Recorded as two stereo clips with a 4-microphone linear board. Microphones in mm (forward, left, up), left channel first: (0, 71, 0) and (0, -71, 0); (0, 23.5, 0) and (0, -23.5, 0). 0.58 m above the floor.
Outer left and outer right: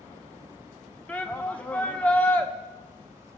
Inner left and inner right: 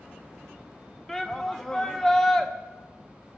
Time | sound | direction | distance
1.1 | a shout | 10° left (ahead or behind) | 0.8 m